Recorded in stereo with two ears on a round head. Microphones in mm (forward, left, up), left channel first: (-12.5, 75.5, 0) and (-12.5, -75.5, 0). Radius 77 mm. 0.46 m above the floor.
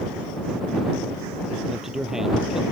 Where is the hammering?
I don't hear hammering.